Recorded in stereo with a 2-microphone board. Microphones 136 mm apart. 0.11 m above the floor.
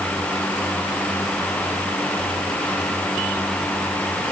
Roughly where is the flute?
I don't hear a flute.